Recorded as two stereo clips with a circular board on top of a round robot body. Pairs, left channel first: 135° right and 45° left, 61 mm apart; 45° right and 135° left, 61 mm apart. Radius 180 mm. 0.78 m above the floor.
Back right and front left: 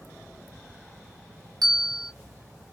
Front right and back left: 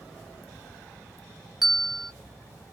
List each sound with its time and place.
1.6 s a bell: 50° left, 0.6 m